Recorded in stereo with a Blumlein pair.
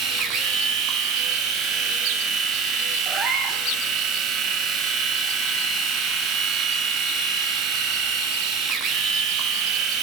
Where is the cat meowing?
20° right, 1.3 m.